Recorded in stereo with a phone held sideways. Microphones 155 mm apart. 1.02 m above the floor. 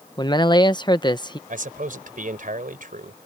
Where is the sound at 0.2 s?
30° left (ahead or behind).